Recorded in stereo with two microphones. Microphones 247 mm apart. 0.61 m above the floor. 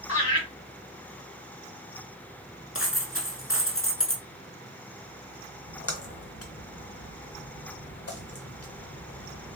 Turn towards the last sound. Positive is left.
turn(degrees=70)  # may be behind; listen again after turning